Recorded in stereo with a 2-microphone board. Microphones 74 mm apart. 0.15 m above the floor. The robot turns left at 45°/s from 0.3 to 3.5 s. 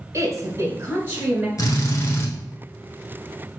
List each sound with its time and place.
0.1 s a woman speaking: 105° right, 1.5 m; by 1.5 s 160° right, 1.5 m
1.6 s a drill: 70° left, 0.9 m; by 2.3 s 40° left, 0.9 m